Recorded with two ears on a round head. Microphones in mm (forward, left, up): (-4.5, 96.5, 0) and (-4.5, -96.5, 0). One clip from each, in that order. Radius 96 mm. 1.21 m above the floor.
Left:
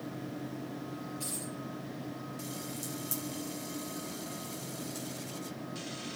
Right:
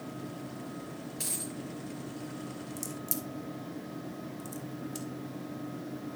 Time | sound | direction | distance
1.2 | a dropped coin | 65° right (ahead or behind) | 5 m
2.8 | a crack | 15° right (ahead or behind) | 1.6 m